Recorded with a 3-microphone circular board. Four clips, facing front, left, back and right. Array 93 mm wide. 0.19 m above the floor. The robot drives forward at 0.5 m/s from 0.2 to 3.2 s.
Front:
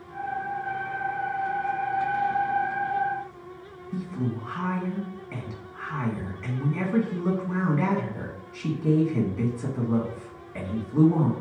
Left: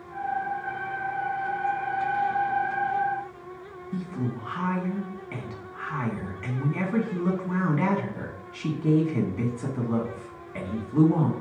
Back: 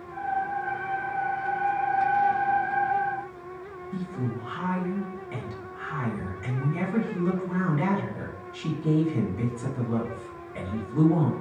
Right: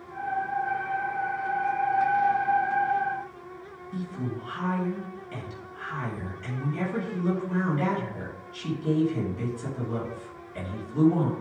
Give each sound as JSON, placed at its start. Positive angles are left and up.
{"t": 3.9, "sound": "a woman speaking", "azimuth_deg": 75, "distance_m": 1.8}